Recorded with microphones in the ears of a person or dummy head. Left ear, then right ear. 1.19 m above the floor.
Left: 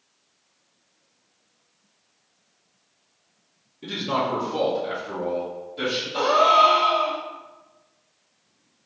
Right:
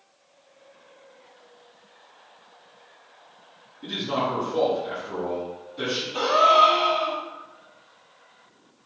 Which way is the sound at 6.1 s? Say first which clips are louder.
Even; 5° left (ahead or behind).